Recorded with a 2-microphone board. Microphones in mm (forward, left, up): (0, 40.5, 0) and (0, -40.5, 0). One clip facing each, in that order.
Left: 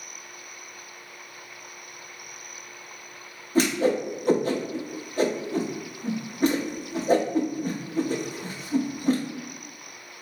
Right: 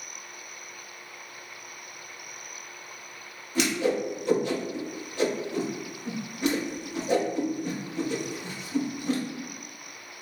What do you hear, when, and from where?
3.5 s a whoosh: 40° left (ahead or behind), 0.6 m